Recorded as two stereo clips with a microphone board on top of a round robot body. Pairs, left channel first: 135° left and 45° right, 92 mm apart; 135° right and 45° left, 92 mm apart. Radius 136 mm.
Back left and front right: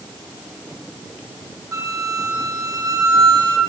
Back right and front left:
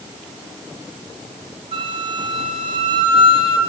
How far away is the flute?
About 6 m.